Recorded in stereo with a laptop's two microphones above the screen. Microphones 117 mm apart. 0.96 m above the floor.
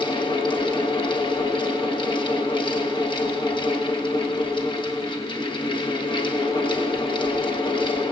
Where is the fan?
40° left (ahead or behind), 0.8 m.